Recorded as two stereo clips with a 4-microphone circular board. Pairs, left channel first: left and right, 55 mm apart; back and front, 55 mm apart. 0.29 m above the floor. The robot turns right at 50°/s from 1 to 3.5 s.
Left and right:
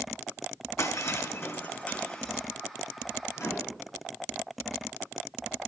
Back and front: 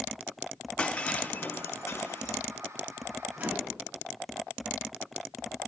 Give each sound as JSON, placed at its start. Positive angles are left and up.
{"t": 0.8, "sound": "breaking glass", "azimuth_deg": 110, "distance_m": 4.0}
{"t": 3.4, "sound": "a microwave", "azimuth_deg": 60, "distance_m": 4.5}